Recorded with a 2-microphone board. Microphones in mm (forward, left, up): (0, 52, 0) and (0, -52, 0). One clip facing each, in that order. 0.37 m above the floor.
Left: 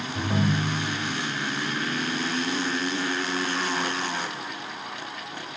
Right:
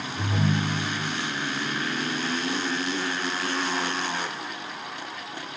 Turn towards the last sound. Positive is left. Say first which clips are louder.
# left 1 dB
turn(degrees=40)  # may be behind; listen again after turning